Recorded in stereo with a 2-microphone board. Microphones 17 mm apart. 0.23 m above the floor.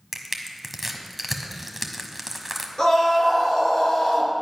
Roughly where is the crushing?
Centre.